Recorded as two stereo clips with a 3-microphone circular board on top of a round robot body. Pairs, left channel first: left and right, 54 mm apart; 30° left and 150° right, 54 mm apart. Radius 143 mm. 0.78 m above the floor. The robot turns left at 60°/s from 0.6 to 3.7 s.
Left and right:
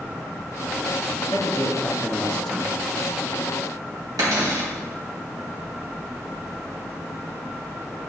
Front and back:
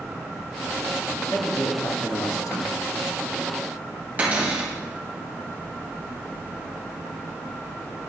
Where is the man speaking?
80° left, 1.5 m; by 2.8 s 10° right, 1.5 m.